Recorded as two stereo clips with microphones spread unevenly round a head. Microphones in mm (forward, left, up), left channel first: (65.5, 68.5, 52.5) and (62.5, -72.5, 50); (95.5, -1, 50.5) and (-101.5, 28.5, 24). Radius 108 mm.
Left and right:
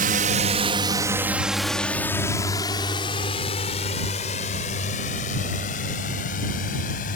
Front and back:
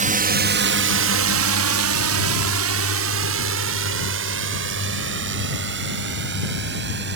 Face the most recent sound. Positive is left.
turn(degrees=135)